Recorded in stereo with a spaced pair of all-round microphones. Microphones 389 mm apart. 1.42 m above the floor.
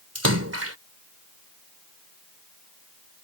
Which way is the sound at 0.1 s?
35° right (ahead or behind).